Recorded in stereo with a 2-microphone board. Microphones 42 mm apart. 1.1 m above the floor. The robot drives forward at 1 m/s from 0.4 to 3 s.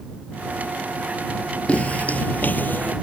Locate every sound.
1.7 s footsteps: 35° left (ahead or behind); by 2.9 s 50° left (ahead or behind)